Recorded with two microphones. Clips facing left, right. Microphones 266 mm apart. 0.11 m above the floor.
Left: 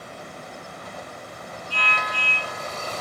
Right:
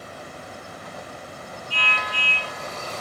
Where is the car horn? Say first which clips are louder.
Left 1 dB; 50° left (ahead or behind).